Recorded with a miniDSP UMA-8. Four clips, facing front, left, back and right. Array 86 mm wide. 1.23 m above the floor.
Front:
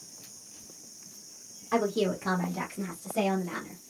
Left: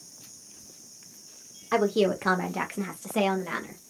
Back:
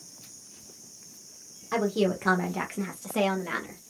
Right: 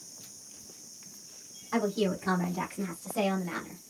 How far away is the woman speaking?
About 1.4 m.